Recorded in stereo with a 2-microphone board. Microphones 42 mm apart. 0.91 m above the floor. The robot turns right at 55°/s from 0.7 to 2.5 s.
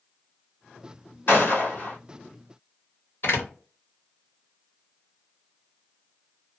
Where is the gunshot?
85° left, 1.4 m; by 2.0 s 125° left, 1.4 m.